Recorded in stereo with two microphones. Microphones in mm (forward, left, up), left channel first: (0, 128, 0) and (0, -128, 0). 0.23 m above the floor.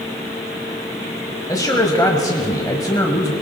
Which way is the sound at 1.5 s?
15° left (ahead or behind).